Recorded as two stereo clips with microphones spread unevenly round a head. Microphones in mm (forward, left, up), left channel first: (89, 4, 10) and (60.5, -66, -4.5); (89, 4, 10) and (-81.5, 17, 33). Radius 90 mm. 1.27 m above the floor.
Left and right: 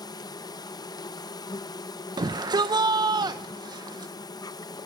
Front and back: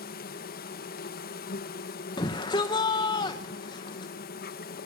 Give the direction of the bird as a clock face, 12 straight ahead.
No bird in this recording.